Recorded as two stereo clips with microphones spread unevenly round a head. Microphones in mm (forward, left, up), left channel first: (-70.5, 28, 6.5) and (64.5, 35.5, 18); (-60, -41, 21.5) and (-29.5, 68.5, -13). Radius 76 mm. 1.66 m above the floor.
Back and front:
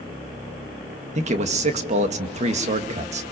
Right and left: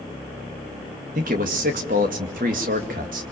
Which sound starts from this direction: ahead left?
A man speaking, at 1.1 s.